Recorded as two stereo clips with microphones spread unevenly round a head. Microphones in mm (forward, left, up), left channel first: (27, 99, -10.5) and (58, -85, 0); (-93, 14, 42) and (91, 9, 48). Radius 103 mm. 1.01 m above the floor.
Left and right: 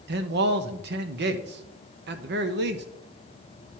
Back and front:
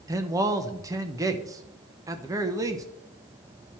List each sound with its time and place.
0.1 s a man speaking: 70° right, 1.0 m